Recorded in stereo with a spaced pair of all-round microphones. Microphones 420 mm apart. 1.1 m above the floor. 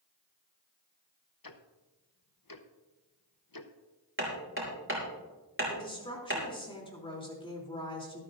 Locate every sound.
1.4 s ticking: 55° left (ahead or behind), 0.9 m
4.2 s hammering: 30° right (ahead or behind), 4.5 m
5.7 s a woman speaking: 10° left (ahead or behind), 3 m